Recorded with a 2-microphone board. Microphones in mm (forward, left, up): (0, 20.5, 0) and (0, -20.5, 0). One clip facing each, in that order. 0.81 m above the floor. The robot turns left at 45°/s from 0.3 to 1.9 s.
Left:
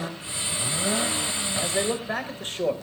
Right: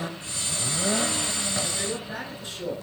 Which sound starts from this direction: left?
A man speaking, at 1.6 s.